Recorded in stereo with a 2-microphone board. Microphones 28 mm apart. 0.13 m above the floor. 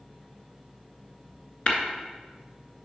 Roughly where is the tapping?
Left.